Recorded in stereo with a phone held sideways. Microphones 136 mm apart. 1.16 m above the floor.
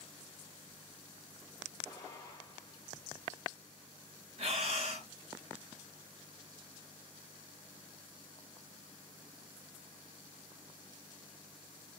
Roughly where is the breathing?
Right.